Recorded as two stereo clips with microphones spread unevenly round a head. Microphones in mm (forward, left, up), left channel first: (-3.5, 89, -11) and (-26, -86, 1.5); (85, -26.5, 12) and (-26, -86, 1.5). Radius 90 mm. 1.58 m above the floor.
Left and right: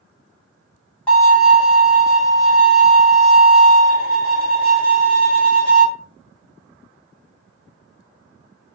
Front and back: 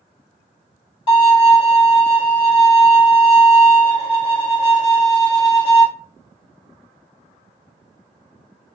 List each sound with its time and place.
1.1 s a violin: 5° right, 1.6 m